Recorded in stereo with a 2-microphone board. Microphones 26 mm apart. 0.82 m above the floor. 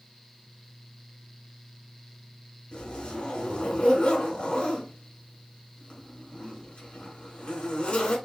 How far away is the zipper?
About 2 m.